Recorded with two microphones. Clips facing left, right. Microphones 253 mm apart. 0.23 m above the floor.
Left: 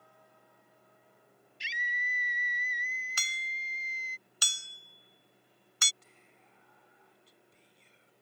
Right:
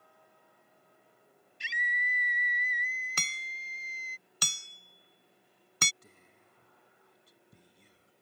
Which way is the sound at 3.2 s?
60° right (ahead or behind).